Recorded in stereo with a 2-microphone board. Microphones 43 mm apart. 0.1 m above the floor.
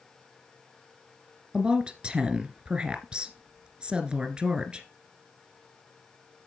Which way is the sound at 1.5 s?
25° right (ahead or behind).